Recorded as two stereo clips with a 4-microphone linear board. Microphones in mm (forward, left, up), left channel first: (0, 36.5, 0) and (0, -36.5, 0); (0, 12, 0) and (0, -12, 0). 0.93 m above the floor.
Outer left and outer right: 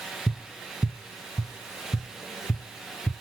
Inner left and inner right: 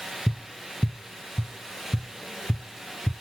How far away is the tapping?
About 0.6 m.